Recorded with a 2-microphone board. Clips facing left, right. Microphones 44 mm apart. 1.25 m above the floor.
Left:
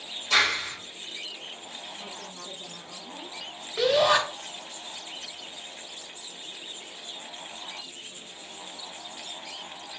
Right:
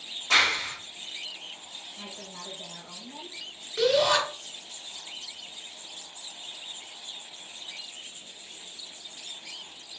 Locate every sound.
0.3 s a clap: 65° right (ahead or behind), 2.0 m
2.0 s a woman speaking: 55° right (ahead or behind), 1.8 m
3.8 s a shout: 15° left (ahead or behind), 1.5 m